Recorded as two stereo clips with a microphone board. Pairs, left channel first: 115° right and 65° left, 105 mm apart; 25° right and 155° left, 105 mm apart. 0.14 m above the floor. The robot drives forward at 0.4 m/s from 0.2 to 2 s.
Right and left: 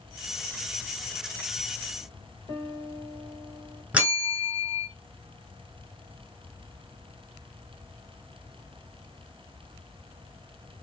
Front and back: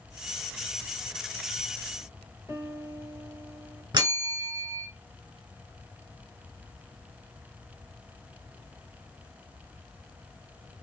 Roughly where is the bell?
Behind left.